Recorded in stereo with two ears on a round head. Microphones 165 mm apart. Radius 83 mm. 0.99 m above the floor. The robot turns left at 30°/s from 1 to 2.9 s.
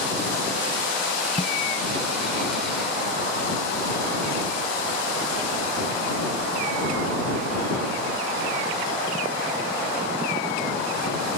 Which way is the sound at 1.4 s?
30° left (ahead or behind).